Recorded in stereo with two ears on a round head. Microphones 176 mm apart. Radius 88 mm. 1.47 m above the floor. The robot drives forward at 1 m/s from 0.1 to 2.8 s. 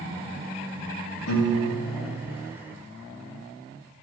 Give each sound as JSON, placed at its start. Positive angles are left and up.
{"t": 1.3, "sound": "a piano", "side_deg": 75, "distance_m": 2.0}